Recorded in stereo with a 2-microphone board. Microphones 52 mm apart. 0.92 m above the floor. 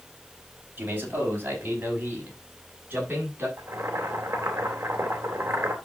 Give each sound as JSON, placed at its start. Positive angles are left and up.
{"t": 0.8, "sound": "a man speaking", "side_deg": -35, "distance_m": 4.5}
{"t": 3.6, "sound": "boiling", "side_deg": -50, "distance_m": 2.5}